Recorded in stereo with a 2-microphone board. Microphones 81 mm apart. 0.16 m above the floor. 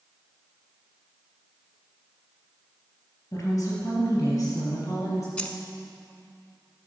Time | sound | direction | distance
3.3 | a woman speaking | 40° left (ahead or behind) | 3.5 m
5.4 | keys jangling | 15° left (ahead or behind) | 0.9 m